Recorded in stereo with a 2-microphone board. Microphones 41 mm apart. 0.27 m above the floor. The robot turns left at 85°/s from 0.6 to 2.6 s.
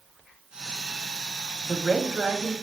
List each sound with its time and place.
1.6 s a woman speaking: 10° left, 1.2 m; by 2.5 s 65° right, 1.2 m